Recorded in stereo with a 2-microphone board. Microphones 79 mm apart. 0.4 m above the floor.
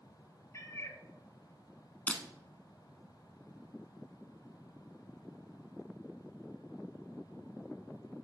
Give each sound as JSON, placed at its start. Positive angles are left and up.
{"t": 0.5, "sound": "a cat meowing", "side_deg": 35, "distance_m": 0.6}
{"t": 2.1, "sound": "breaking glass", "side_deg": 15, "distance_m": 0.8}